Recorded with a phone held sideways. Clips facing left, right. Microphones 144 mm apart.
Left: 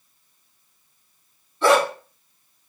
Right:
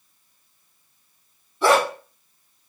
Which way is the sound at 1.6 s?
10° right (ahead or behind).